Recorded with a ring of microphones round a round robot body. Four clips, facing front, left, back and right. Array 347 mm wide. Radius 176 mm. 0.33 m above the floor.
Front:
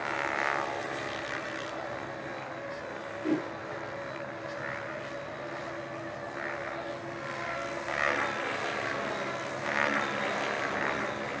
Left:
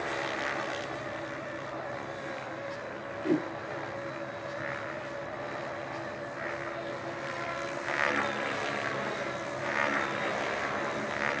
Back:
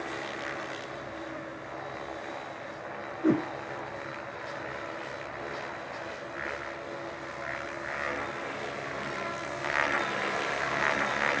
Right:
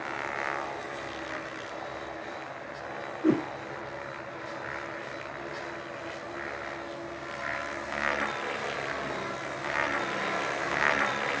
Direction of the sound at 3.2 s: 150° right.